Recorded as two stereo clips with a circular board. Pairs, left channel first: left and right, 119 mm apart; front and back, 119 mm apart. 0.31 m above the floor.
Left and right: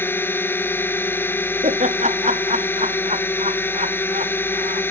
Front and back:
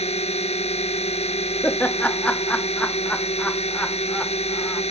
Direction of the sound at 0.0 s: 20° left.